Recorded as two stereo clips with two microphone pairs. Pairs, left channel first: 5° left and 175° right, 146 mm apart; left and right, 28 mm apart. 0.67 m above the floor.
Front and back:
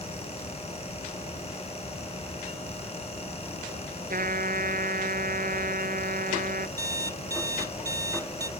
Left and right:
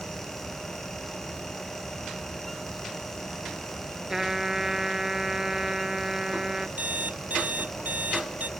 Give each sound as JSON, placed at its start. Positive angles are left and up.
{"t": 4.1, "sound": "a trumpet", "azimuth_deg": -165}
{"t": 6.8, "sound": "an alarm clock", "azimuth_deg": -110}